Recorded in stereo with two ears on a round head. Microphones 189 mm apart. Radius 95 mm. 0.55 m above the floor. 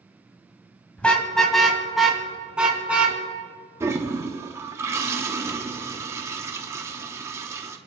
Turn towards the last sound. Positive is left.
turn(degrees=-15)  # may be behind; listen again after turning